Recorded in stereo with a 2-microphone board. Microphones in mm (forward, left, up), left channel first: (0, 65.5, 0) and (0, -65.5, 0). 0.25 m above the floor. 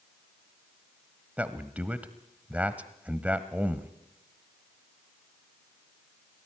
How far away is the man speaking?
About 1.1 m.